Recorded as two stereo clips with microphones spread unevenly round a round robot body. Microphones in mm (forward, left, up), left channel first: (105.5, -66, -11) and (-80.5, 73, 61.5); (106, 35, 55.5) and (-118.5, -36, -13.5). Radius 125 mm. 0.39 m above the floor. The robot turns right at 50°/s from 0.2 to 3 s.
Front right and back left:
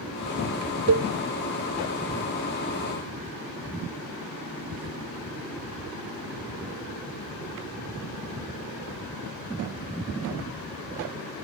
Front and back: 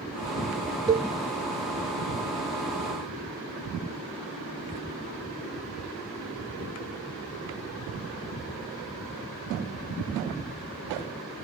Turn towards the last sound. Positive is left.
turn(degrees=-125)